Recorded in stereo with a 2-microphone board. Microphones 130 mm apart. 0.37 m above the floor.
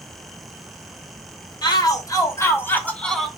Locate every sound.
1.6 s a shout: 30° left (ahead or behind), 3 m; by 3.3 s centre (ahead or behind), 2 m